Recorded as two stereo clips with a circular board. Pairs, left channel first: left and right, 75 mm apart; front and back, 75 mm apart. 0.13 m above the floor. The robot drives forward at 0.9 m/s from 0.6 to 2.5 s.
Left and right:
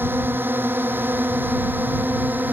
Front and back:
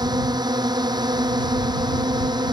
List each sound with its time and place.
0.0 s a drone: 150° right; by 2.5 s 155° right